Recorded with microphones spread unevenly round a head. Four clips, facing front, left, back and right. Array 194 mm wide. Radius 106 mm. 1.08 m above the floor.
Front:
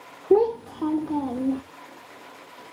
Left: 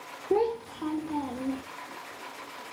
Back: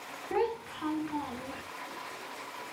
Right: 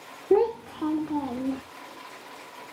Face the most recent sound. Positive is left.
turn(degrees=-20)